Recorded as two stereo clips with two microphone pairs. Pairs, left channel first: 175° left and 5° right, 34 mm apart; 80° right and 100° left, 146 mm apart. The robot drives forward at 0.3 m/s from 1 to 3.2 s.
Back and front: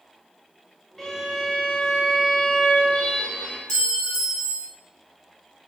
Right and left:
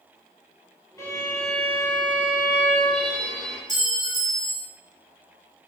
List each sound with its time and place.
1.0 s a violin: 115° right, 0.6 m; by 3.6 s 160° right, 1.0 m
3.7 s a clink: 100° left, 1.1 m